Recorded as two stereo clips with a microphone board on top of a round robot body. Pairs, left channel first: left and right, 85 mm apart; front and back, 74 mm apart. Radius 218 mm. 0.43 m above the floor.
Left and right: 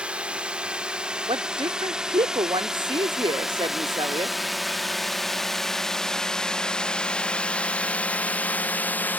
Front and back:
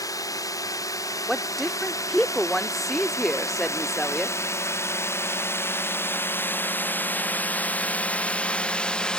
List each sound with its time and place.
0.0 s a drone: 15° right; by 9.2 s 60° left
1.3 s a woman speaking: 85° right